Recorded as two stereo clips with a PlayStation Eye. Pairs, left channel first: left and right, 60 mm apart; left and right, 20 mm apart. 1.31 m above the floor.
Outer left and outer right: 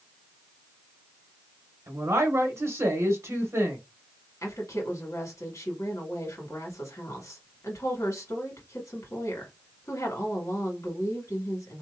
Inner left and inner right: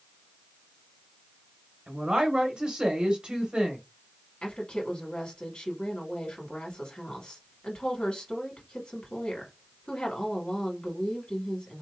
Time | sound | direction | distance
1.9 | a woman speaking | 55° right (ahead or behind) | 1.0 m
4.4 | a woman speaking | 60° left (ahead or behind) | 1.8 m